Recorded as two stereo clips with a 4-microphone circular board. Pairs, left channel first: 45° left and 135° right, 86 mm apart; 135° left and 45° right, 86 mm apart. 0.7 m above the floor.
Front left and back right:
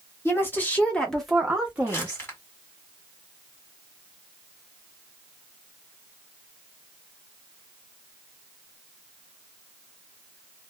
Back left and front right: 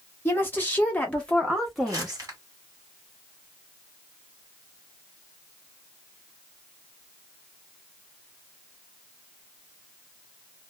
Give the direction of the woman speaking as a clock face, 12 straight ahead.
9 o'clock.